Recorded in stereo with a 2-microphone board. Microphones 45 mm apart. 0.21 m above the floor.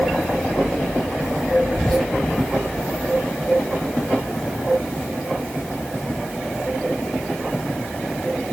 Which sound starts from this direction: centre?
Whispering, at 1.7 s.